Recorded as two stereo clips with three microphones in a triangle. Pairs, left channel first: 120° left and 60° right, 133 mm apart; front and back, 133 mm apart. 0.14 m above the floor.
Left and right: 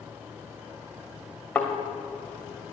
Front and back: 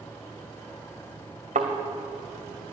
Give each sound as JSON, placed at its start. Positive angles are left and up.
{"t": 1.6, "sound": "a thud", "azimuth_deg": -160, "distance_m": 2.5}